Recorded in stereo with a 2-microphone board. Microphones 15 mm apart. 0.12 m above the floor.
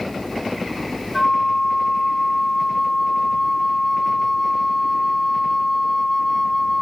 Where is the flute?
40° left (ahead or behind), 0.8 m.